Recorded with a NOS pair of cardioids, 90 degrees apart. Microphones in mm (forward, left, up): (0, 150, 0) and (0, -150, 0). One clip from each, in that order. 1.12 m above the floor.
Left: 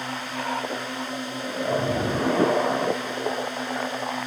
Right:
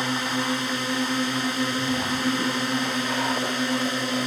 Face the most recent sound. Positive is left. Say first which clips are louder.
# right 4 dB
turn(degrees=-60)